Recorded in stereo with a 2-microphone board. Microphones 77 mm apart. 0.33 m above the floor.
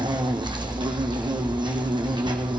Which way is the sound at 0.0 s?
75° right (ahead or behind).